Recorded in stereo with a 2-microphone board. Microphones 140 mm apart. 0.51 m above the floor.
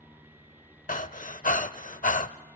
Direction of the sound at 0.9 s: 75° left (ahead or behind).